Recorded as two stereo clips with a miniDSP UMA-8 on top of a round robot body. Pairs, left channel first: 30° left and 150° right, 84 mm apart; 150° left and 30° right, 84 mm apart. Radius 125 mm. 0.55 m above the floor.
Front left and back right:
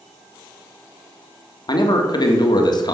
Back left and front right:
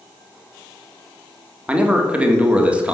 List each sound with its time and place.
1.7 s a man speaking: 45° left, 1.5 m